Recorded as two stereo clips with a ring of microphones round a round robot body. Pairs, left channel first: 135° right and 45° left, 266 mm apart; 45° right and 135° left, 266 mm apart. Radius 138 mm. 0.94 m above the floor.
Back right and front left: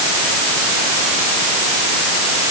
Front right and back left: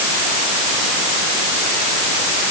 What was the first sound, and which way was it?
Only background noise.